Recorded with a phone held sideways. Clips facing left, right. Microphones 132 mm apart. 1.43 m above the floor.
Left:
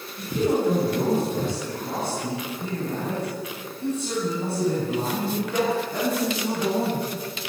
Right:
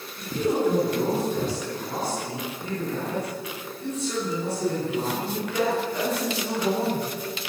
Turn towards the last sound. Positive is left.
turn(degrees=35)  # may be behind; listen again after turning